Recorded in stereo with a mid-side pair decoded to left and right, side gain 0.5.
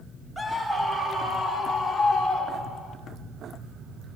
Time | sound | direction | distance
0.4 | a scream | straight ahead | 2 m